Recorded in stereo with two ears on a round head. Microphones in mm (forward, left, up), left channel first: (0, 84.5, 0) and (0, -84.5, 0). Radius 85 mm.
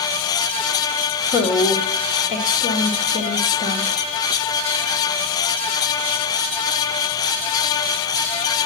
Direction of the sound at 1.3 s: 40° left (ahead or behind).